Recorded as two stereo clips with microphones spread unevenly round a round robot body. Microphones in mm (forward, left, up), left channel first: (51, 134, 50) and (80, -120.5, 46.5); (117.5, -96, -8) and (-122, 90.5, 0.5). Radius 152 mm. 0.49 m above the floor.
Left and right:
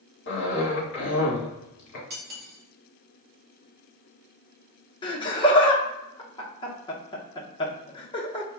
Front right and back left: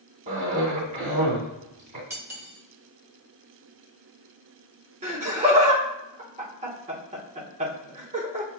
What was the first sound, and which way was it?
A cough, 80° left.